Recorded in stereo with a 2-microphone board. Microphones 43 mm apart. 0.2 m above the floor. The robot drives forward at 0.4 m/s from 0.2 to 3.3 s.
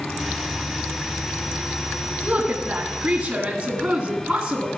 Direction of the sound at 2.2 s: 30° right (ahead or behind).